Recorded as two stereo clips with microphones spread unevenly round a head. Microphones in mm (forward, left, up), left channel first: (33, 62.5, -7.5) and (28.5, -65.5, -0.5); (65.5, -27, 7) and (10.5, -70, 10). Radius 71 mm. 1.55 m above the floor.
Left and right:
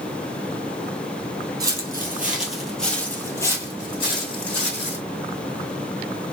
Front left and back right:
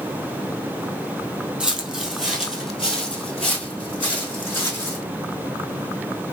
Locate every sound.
1.6 s footsteps: 90° right, 1.7 m; by 5.0 s 120° left, 2.5 m